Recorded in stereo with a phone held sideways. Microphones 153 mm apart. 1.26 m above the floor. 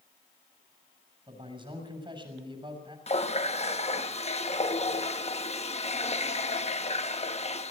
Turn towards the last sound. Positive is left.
turn(degrees=45)  # may be behind; listen again after turning